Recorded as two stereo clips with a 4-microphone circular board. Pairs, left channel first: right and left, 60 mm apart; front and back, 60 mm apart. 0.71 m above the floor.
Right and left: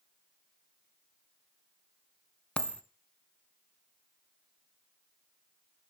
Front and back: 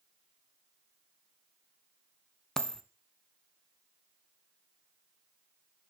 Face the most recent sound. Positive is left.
turn(degrees=-70)